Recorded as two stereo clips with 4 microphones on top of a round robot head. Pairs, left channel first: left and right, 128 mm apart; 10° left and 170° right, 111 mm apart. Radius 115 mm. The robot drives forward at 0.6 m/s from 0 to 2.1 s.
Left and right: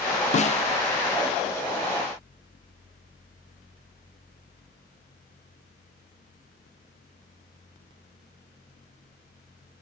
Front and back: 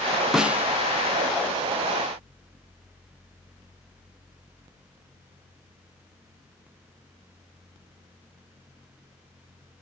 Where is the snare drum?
105° left, 0.8 m; by 0.7 s 120° left, 0.8 m.